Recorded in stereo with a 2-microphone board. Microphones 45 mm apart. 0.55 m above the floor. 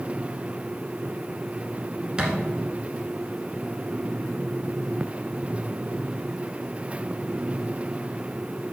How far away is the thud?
About 1.4 m.